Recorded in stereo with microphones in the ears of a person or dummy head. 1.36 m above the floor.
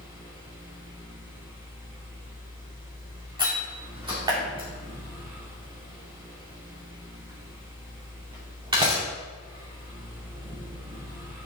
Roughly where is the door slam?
Right.